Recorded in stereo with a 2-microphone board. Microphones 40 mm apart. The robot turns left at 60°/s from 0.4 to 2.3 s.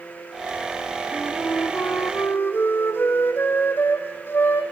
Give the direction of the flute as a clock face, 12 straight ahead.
8 o'clock.